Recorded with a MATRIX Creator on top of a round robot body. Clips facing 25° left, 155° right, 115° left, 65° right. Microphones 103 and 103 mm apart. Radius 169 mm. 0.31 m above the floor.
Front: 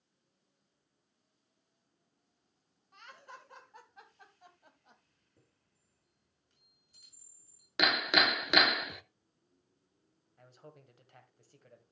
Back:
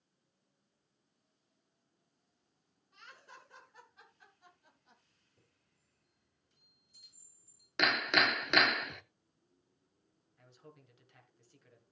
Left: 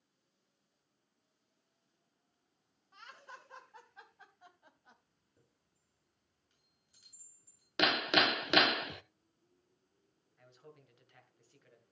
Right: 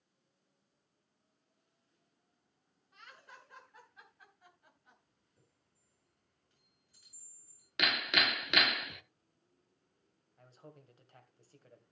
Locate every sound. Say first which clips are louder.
2.9 s laughter: front 4 dB, left 3 dB; 55° left, 5 m; by 5.0 s 45° left, 3 m
5.4 s a chime: front 4 dB, left 1 dB; 45° left, 8 m
7.8 s hammering: front 1 dB, left 4 dB; 100° left, 0.7 m
10.4 s a man speaking: front 3 dB, right 2 dB; 20° right, 2.5 m